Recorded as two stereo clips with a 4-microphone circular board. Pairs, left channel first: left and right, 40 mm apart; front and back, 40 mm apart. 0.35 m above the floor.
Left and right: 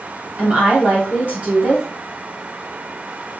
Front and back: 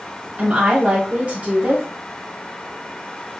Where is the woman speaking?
130° right, 1.9 m.